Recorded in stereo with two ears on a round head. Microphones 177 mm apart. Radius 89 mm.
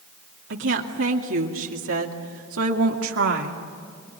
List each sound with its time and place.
0.5 s a woman speaking: 70° right (ahead or behind), 2.5 m